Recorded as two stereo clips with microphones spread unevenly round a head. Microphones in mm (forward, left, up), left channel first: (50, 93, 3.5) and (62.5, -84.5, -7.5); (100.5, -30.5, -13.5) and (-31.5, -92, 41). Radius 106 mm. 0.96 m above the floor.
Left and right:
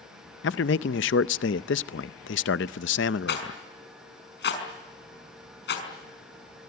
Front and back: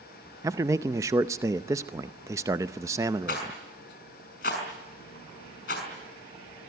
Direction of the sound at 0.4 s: 120° left.